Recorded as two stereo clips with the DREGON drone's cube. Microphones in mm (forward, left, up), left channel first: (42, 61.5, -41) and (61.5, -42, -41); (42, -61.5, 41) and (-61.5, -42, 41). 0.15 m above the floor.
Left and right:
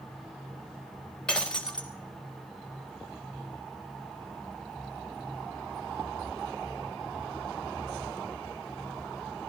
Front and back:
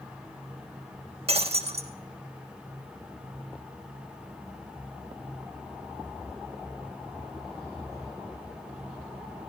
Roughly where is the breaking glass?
Behind.